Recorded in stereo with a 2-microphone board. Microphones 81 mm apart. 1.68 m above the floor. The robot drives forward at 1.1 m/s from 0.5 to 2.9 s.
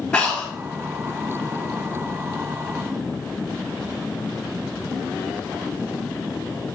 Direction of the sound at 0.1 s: 10° left (ahead or behind).